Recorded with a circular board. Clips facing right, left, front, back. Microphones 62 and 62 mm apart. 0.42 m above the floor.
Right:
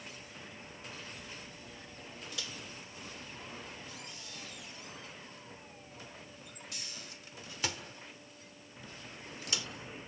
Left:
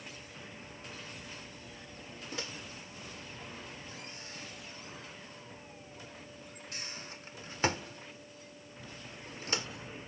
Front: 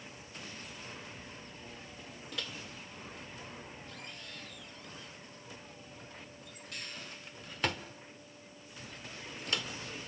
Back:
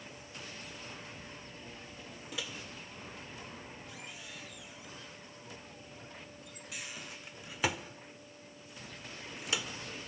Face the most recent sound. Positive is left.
turn(degrees=105)